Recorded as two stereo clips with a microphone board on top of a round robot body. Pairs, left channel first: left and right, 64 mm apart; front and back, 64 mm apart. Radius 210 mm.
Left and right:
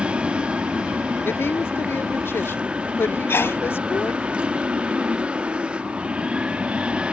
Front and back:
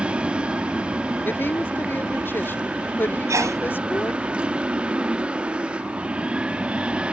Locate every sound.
0.0 s an aircraft: 135° right
1.2 s a woman speaking: 50° left
3.3 s a sneeze: 145° left